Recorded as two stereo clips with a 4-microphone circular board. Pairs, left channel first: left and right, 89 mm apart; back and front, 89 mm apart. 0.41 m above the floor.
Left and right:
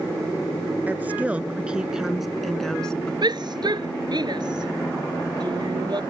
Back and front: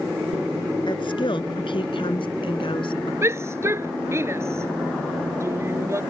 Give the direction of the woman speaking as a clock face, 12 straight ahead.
5 o'clock.